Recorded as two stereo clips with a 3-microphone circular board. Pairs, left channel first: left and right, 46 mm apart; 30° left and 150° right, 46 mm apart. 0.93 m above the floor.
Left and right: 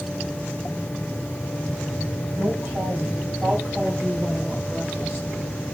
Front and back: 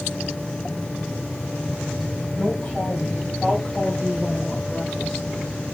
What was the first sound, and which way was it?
A woman speaking, 30° right.